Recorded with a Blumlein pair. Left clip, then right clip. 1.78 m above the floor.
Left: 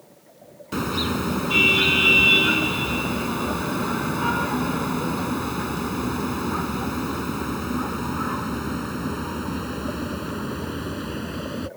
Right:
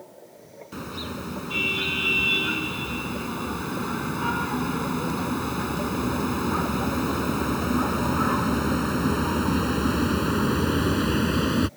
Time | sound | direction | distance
0.7 | a car horn | 25° left | ?